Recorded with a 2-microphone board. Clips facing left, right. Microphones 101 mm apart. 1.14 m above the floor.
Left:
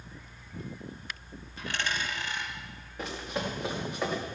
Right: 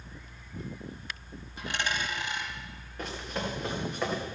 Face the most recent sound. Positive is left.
turn(degrees=5)  # may be behind; listen again after turning